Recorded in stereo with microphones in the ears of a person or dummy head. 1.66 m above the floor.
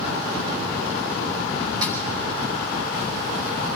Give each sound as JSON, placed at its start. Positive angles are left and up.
{"t": 1.8, "sound": "a snare drum", "side_deg": -25, "distance_m": 5.5}